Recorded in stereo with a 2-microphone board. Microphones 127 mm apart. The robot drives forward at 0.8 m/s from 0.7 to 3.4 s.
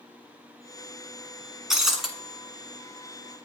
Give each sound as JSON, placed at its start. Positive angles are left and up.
{"t": 1.7, "sound": "breaking glass", "side_deg": -5, "distance_m": 0.9}